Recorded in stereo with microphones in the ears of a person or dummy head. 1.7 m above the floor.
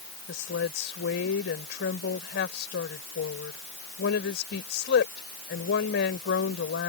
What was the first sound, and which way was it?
A woman speaking, 70° left (ahead or behind).